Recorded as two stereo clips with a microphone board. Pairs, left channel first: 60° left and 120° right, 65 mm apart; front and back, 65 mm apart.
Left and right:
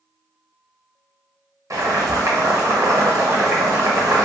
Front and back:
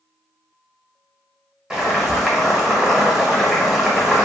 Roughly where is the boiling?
Right.